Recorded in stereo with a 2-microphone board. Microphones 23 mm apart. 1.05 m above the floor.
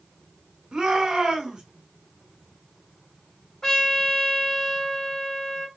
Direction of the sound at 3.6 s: 20° left (ahead or behind).